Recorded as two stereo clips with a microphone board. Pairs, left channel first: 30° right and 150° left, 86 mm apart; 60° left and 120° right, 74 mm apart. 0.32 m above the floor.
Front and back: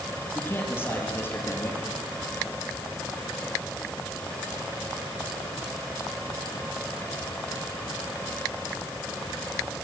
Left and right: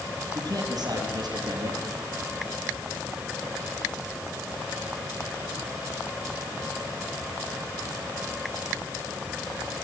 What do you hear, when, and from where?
0.3 s a man speaking: 95° right, 8.5 m